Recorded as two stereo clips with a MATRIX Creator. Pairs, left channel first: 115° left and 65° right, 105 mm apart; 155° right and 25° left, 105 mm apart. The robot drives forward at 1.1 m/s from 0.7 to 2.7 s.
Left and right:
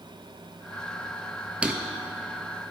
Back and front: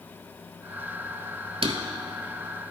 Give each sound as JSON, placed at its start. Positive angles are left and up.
{"t": 1.6, "sound": "a drawer", "azimuth_deg": 10, "distance_m": 0.6}